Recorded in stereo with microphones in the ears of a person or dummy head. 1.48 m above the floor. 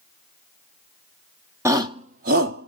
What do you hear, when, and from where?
1.6 s a shout: 25° right (ahead or behind), 1.0 m; by 2.7 s 55° right (ahead or behind), 1.2 m